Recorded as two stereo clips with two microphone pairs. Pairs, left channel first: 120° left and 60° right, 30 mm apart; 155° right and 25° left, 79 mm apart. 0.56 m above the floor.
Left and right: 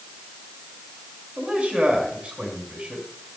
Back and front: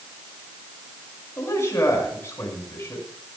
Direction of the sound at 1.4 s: 100° right.